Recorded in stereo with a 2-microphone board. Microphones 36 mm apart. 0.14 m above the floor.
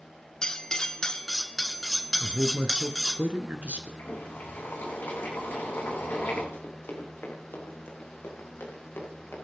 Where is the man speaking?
40° right (ahead or behind), 1.7 m.